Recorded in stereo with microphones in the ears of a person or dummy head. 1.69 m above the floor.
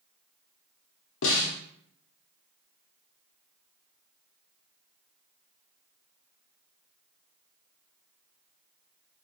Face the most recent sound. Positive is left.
turn(degrees=70)  # may be behind; listen again after turning